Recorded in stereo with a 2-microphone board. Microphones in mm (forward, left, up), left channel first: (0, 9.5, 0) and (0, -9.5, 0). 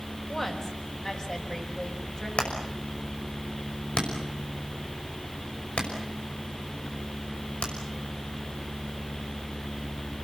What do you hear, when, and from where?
0.3 s a woman speaking: 25° left (ahead or behind), 4.5 m; by 2.3 s 40° left (ahead or behind), 7 m
2.4 s hammering: 90° left, 5.5 m